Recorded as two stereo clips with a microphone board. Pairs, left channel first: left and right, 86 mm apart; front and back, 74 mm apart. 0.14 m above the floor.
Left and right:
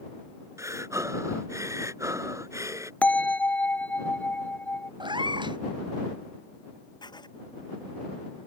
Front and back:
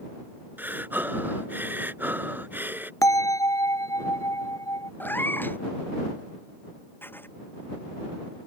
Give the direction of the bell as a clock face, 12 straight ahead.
11 o'clock.